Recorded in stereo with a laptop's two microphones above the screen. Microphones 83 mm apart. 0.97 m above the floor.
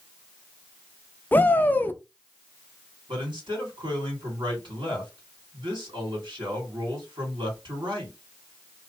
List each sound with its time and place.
1.3 s a shout: 25° left (ahead or behind), 0.5 m
3.1 s a man speaking: 80° right, 2 m